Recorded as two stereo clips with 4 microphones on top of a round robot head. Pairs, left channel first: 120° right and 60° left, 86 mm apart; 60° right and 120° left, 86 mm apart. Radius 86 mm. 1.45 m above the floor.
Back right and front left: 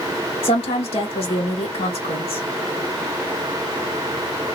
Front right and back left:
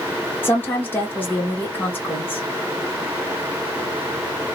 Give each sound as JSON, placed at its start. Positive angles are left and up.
{"t": 0.4, "sound": "a woman speaking", "azimuth_deg": -130, "distance_m": 1.5}